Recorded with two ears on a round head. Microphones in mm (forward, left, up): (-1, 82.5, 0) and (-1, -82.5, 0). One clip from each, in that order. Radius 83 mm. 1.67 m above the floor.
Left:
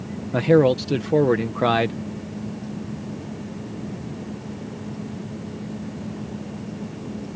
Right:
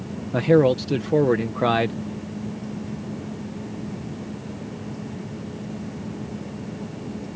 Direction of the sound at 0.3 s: 5° left (ahead or behind).